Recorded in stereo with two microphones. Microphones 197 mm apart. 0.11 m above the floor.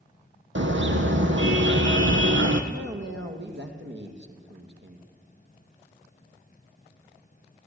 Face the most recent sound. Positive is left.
turn(degrees=-65)  # may be behind; listen again after turning